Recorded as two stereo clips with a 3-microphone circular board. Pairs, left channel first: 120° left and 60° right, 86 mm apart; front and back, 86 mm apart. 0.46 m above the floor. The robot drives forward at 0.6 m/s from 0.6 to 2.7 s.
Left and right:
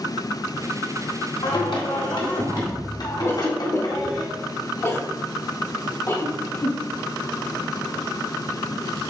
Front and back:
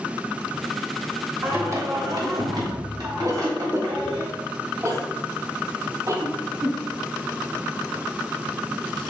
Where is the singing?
120° left, 1.0 m; by 4.2 s 150° left, 1.5 m.